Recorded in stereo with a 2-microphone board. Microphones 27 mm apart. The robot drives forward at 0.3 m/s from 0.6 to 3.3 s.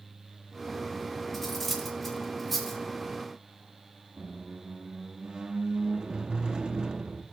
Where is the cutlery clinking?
5° left (ahead or behind), 1.7 m.